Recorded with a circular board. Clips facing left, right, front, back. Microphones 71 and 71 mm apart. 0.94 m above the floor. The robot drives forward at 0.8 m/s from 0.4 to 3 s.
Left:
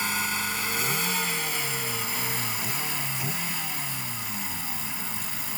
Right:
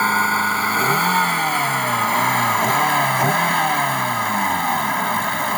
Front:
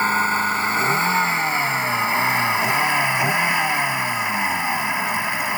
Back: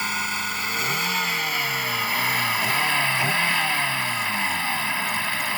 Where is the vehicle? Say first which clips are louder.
Right 12 dB, front 8 dB; 55° right; by 5.6 s 70° right.